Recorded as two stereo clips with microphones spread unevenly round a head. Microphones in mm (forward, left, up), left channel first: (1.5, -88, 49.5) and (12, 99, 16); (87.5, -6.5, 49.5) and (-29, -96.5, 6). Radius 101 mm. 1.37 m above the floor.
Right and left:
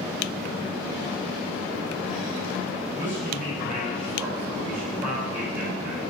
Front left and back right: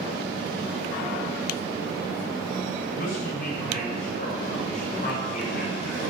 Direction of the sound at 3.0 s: 5° left.